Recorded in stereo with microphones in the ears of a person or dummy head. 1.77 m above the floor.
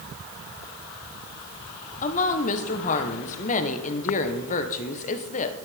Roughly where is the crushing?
No crushing in this recording.